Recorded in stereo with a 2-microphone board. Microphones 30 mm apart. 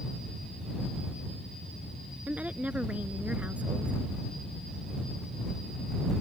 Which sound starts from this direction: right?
A woman speaking, at 2.3 s.